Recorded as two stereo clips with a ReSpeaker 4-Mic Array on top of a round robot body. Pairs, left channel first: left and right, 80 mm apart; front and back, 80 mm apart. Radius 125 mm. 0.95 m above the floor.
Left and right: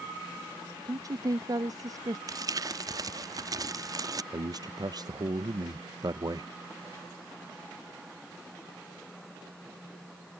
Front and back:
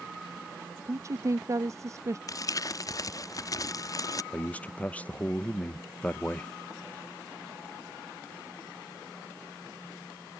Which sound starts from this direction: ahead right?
Crumpling, at 2.3 s.